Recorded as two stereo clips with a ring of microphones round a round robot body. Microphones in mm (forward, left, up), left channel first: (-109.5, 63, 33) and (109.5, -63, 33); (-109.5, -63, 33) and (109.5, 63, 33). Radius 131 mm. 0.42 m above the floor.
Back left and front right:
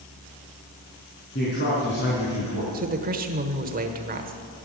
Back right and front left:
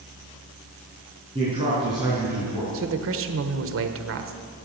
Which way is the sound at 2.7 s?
20° left.